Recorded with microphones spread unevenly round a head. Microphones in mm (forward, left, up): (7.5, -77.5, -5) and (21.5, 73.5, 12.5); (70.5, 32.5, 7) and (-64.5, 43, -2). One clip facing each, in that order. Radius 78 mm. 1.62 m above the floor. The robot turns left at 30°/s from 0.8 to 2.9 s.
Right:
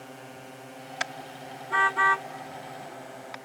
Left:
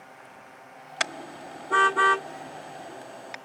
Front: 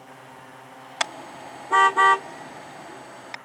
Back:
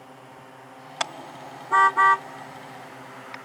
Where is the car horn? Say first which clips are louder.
Left 4 dB, front 1 dB; 85° left; by 3.4 s 25° left.